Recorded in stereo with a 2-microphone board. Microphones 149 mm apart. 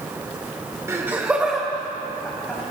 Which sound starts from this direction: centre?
Laughter, at 0.9 s.